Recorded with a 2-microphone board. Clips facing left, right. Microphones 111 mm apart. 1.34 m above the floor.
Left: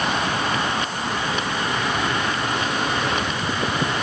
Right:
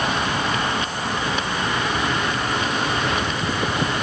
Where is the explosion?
I don't hear an explosion.